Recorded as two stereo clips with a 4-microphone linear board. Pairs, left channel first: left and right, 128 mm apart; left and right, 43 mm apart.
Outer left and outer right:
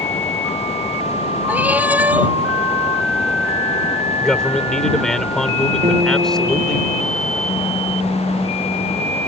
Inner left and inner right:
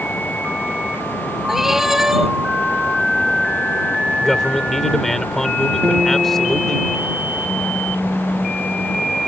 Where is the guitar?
65° right (ahead or behind).